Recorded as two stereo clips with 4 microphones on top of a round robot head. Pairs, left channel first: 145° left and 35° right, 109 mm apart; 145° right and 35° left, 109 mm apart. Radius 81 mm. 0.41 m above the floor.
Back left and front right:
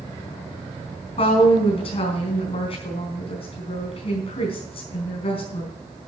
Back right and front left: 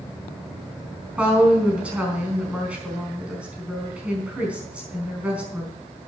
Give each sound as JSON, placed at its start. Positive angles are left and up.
{"t": 1.2, "sound": "a woman speaking", "azimuth_deg": 115, "distance_m": 4.5}